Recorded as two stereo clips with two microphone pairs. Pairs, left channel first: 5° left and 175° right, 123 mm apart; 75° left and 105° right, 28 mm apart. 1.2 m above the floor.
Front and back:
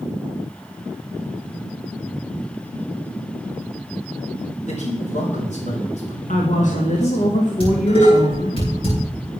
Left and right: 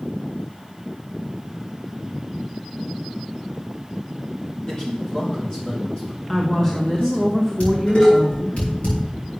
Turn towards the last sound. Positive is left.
turn(degrees=45)